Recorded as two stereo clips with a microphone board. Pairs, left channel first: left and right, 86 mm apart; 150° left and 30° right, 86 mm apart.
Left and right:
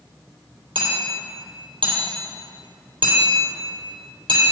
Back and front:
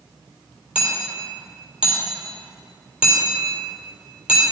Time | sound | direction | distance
0.8 | hammering | 110° right | 3 m